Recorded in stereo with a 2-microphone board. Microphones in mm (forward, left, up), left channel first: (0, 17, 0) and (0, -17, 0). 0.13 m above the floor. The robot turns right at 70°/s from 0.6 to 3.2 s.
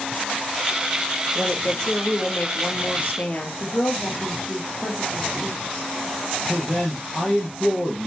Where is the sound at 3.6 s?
50° left (ahead or behind), 5 m.